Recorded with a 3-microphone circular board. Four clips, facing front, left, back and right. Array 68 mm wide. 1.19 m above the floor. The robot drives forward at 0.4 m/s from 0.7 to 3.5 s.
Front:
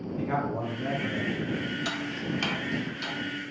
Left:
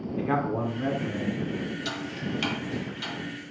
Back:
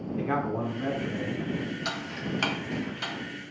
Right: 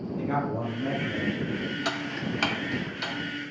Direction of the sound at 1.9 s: 100° right.